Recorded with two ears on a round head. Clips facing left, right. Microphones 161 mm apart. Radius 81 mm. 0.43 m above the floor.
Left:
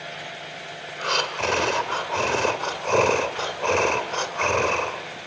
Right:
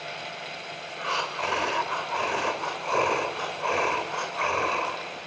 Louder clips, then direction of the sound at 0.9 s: Left 4 dB; 45° left (ahead or behind).